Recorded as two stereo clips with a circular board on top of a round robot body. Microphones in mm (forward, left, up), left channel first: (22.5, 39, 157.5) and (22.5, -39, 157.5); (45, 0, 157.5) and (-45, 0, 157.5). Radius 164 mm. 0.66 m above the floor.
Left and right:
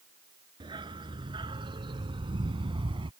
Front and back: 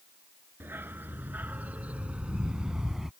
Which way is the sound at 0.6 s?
110° right.